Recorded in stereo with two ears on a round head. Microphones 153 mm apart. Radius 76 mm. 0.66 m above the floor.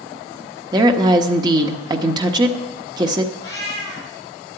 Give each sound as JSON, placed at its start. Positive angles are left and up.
{"t": 0.7, "sound": "a woman speaking", "side_deg": -25, "distance_m": 1.1}
{"t": 3.4, "sound": "a cat meowing", "side_deg": 20, "distance_m": 5.5}